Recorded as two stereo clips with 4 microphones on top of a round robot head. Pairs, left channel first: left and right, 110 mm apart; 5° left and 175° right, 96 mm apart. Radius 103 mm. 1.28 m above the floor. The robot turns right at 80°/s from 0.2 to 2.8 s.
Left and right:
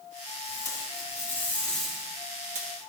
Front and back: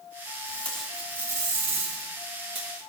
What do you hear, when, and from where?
0.5 s tape being pulled: 65° left, 1.6 m; by 2.7 s 115° right, 1.6 m